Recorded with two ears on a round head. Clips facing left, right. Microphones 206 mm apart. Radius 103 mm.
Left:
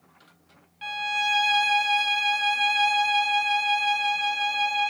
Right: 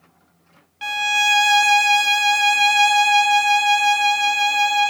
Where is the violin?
65° right (ahead or behind), 0.9 m.